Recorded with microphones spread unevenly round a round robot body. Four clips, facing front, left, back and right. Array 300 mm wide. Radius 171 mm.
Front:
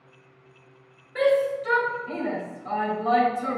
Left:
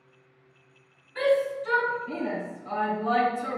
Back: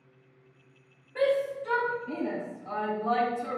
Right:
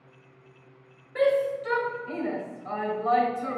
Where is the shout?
60° right, 3 m; by 3.6 s 20° right, 3.5 m.